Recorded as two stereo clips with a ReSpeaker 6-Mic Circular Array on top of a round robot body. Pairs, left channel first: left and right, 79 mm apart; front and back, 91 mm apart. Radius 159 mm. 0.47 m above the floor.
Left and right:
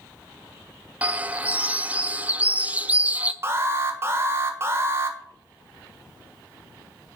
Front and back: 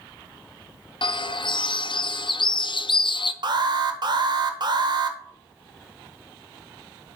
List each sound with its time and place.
1.0 s a bird: 20° right, 0.8 m
3.4 s an alarm: 145° right, 1.4 m